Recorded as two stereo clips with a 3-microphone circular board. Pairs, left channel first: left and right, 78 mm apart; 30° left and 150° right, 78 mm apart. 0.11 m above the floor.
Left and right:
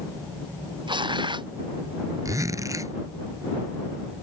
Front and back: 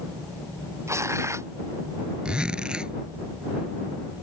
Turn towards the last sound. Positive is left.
turn(degrees=-75)